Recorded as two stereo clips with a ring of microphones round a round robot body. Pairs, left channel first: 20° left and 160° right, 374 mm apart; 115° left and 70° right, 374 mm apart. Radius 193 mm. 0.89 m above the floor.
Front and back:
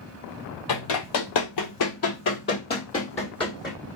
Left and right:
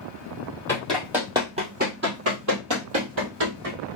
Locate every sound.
0.7 s running footsteps: 30° left, 1.4 m; by 3.8 s 60° right, 1.7 m